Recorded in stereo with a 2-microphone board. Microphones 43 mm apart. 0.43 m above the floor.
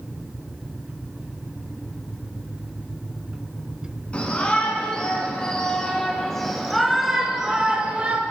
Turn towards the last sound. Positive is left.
turn(degrees=-35)  # may be behind; listen again after turning